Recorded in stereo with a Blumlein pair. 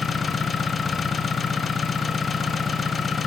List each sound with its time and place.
0.0 s an engine running: 15° left, 0.9 m